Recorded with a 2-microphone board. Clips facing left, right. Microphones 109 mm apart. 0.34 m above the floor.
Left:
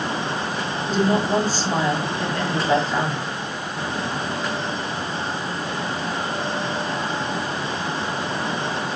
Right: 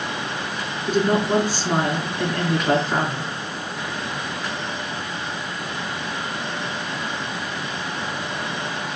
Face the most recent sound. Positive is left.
turn(degrees=-50)  # may be behind; listen again after turning